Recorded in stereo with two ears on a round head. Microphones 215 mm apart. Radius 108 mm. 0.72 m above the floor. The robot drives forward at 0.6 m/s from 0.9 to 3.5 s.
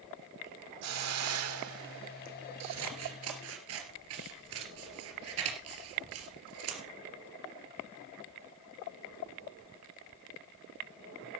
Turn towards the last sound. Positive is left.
turn(degrees=-65)  # may be behind; listen again after turning